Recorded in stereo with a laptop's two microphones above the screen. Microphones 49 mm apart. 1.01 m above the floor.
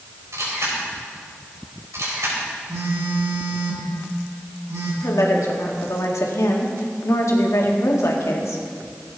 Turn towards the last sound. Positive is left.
turn(degrees=80)